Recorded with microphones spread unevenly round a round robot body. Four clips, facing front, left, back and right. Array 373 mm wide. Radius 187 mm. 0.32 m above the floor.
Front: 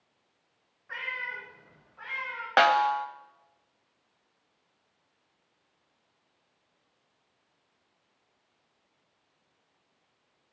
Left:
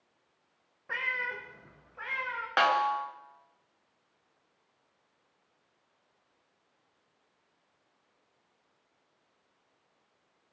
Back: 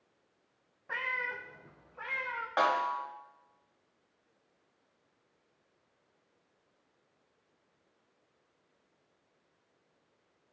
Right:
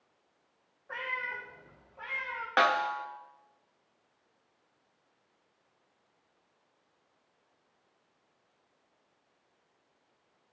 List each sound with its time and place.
0.9 s a cat meowing: 110° left, 1.6 m; by 2.5 s 135° left, 2.5 m
2.6 s a snare drum: 10° right, 0.8 m